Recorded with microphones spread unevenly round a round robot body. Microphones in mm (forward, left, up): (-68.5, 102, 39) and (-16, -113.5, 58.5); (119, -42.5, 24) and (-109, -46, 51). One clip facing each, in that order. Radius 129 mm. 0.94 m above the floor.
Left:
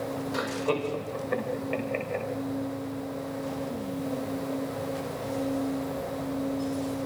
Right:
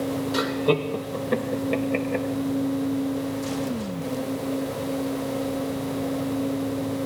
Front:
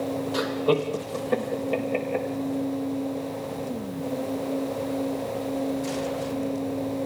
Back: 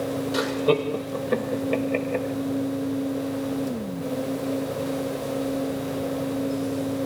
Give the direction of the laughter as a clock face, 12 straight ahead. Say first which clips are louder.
Right 6 dB, back 1 dB; 4 o'clock.